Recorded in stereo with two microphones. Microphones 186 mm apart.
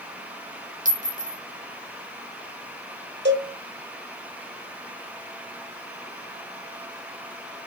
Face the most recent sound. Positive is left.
turn(degrees=-70)  # may be behind; listen again after turning